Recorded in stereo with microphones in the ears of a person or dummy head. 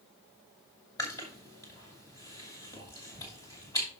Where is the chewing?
20° left (ahead or behind), 2.5 m.